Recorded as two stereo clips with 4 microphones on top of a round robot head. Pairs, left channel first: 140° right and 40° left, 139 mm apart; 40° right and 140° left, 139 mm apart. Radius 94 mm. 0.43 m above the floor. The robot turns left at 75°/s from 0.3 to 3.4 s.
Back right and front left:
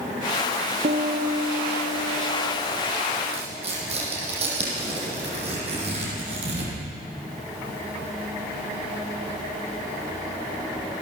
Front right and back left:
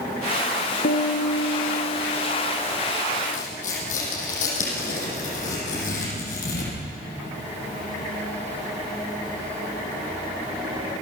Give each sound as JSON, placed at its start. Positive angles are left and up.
{"t": 0.8, "sound": "a piano", "azimuth_deg": -5, "distance_m": 2.5}
{"t": 3.3, "sound": "tearing paper", "azimuth_deg": -5, "distance_m": 7.5}